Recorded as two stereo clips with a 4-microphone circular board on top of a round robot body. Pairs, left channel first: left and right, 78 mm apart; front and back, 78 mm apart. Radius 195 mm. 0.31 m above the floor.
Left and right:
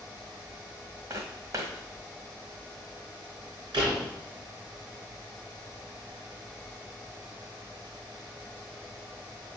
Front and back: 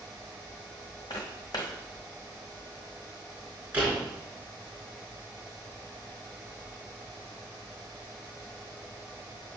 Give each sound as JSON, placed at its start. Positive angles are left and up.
{"t": 1.1, "sound": "footsteps", "azimuth_deg": -40, "distance_m": 1.8}
{"t": 3.7, "sound": "a door slam", "azimuth_deg": -110, "distance_m": 4.0}